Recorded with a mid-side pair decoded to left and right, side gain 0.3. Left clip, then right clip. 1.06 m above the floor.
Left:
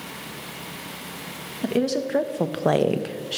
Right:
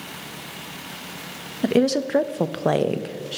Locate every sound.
1.6 s a woman speaking: 60° right, 0.8 m; by 3.4 s 30° left, 0.8 m